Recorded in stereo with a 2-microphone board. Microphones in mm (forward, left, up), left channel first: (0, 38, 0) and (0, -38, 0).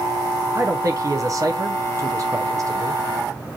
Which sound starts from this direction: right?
A man speaking, at 0.5 s.